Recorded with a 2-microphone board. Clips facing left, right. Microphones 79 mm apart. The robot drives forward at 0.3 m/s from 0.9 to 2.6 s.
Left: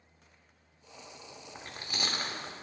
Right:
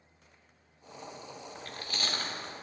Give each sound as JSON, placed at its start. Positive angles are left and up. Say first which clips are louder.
{"t": 1.6, "sound": "chewing", "louder": "left 1 dB", "side_deg": 20, "distance_m": 0.7}